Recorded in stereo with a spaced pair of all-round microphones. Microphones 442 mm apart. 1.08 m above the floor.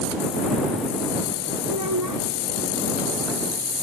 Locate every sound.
1.7 s a child speaking: 45° right (ahead or behind)